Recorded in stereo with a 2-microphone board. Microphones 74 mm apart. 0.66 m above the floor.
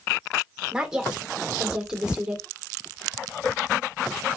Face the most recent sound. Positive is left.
turn(degrees=-10)  # may be behind; listen again after turning